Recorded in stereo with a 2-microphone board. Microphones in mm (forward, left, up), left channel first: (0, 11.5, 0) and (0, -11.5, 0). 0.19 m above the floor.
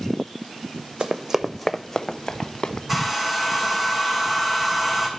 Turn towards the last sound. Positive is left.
turn(degrees=-5)  # may be behind; listen again after turning